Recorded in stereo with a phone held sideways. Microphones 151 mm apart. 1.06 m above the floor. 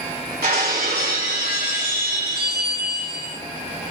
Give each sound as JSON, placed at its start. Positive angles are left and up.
{"t": 0.4, "sound": "breaking glass", "side_deg": -80, "distance_m": 2.0}